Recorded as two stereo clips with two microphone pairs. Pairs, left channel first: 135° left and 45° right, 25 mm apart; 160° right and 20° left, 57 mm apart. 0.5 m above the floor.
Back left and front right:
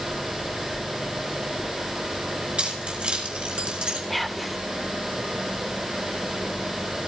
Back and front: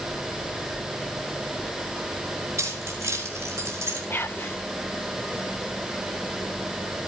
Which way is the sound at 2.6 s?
5° right.